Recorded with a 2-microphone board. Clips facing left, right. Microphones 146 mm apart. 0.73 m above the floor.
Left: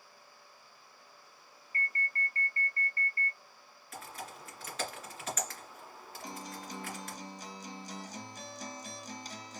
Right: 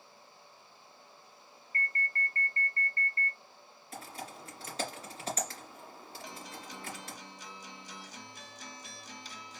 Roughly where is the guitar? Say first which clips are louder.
Left 4 dB; left.